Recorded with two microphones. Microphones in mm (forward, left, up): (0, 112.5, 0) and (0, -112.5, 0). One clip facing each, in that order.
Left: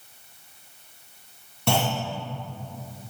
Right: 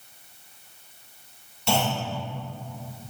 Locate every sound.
1.7 s a clunk: 65° left (ahead or behind), 3 m